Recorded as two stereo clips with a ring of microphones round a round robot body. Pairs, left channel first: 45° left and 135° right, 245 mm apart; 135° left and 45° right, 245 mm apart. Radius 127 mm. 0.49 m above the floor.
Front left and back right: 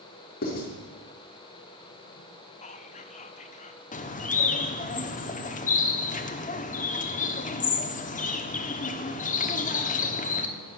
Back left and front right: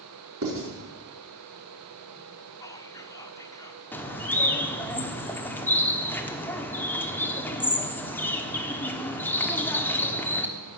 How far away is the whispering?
About 1.3 m.